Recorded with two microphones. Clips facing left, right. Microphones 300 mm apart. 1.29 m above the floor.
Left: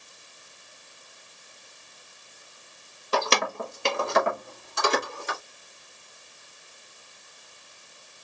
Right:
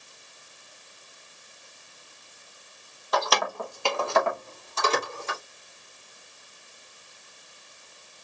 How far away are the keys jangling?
About 0.7 m.